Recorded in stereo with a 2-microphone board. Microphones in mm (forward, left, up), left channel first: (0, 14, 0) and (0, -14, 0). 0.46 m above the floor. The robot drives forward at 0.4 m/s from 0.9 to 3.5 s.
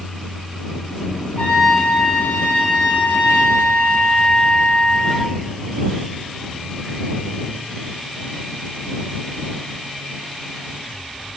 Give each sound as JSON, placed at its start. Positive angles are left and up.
{"t": 1.4, "sound": "a trumpet", "side_deg": 60, "distance_m": 3.0}